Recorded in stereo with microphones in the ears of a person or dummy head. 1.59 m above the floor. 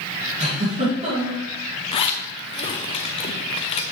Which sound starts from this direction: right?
A giggle, at 0.4 s.